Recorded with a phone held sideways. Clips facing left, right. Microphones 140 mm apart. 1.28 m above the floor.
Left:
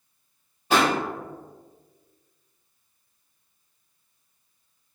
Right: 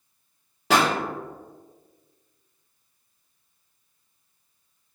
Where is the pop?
85° right, 0.9 m.